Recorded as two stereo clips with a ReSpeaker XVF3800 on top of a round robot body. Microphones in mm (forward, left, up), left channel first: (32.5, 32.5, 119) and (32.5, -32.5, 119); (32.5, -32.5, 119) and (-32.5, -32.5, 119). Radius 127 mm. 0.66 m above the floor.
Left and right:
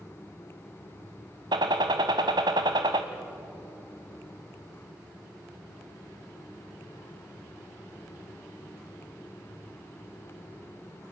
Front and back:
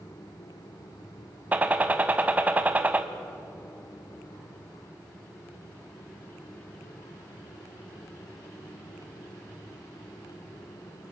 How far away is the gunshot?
About 0.7 m.